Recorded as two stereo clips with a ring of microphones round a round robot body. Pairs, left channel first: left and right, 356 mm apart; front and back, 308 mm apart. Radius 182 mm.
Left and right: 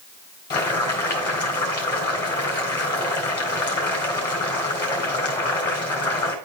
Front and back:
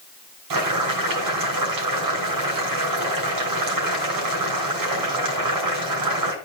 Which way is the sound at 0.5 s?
170° left.